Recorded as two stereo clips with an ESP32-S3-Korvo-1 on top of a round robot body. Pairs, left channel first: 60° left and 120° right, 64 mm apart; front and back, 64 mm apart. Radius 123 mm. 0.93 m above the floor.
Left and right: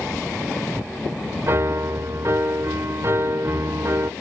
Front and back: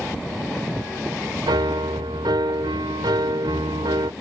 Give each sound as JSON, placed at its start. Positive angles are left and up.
{"t": 1.5, "sound": "a piano", "azimuth_deg": -170}